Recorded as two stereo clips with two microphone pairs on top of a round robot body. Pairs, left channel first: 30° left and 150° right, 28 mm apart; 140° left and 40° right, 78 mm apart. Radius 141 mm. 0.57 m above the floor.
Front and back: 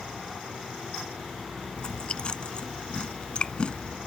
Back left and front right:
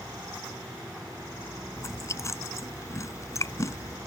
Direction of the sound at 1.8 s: 85° left.